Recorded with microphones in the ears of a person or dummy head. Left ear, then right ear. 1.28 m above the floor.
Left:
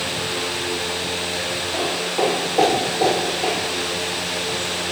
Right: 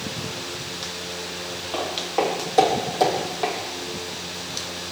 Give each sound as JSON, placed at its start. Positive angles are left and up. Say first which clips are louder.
{"t": 1.7, "sound": "footsteps", "louder": "even", "side_deg": -65, "distance_m": 3.5}